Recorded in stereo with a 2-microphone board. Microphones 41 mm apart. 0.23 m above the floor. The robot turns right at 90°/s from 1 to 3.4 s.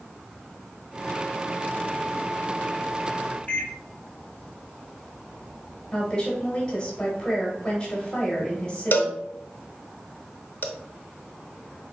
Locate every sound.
3.5 s a microwave: 35° left (ahead or behind), 1.6 m
5.9 s a woman speaking: 20° left (ahead or behind), 1.4 m
8.9 s a cowbell: 60° left (ahead or behind), 0.7 m